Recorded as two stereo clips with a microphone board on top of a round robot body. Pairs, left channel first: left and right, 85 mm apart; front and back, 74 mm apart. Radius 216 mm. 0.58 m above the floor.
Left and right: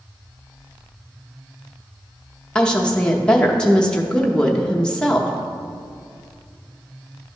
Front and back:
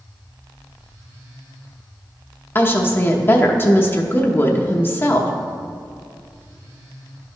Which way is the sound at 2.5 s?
20° left.